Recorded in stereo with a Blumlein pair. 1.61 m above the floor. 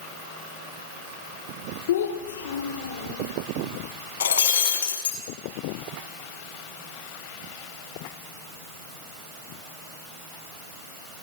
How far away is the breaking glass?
About 5.5 m.